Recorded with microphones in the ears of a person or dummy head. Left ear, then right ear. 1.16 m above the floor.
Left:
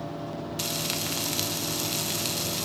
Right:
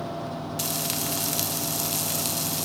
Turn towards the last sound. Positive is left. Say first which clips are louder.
# even
turn(degrees=0)  # may be behind; listen again after turning